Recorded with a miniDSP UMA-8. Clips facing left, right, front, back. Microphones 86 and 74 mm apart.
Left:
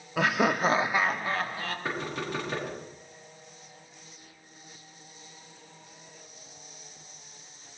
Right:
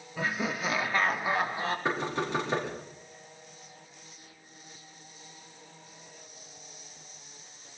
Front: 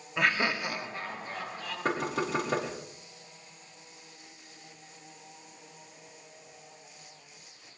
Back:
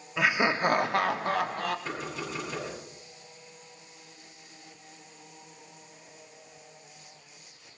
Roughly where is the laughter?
Left.